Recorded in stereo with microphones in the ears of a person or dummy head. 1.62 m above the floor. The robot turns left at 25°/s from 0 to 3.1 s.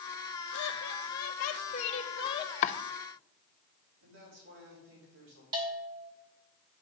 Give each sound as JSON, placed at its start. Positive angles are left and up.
{"t": 0.5, "sound": "laughter", "azimuth_deg": 80, "distance_m": 1.7}
{"t": 2.6, "sound": "chopping", "side_deg": 50, "distance_m": 0.5}
{"t": 4.0, "sound": "a woman speaking", "side_deg": -70, "distance_m": 5.5}
{"t": 5.5, "sound": "a bell", "side_deg": -15, "distance_m": 3.0}